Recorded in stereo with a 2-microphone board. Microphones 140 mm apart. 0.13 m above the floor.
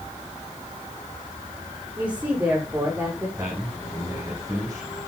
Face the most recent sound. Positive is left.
turn(degrees=-20)  # may be behind; listen again after turning